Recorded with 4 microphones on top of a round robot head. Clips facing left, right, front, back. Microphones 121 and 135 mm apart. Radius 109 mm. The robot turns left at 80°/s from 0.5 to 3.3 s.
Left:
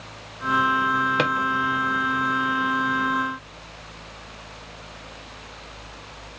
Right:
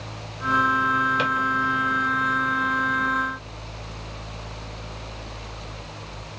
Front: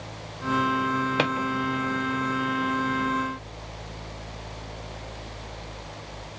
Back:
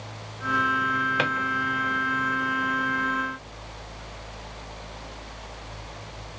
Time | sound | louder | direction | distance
1.2 | a drawer | left 2 dB, front 3 dB | 60° left | 0.6 m